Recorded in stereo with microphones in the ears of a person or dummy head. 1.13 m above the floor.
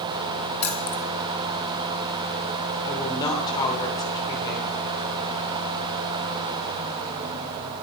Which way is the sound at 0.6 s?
30° left (ahead or behind).